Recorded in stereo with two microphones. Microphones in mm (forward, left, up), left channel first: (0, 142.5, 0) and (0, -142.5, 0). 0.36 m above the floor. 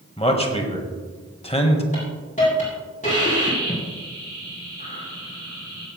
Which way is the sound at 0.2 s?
20° left (ahead or behind).